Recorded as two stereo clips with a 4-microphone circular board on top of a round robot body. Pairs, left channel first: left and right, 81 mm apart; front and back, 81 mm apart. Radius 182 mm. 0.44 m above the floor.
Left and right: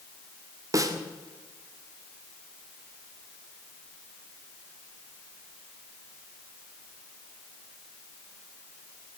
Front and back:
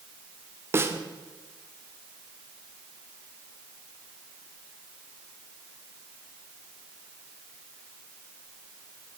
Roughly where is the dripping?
No dripping in this recording.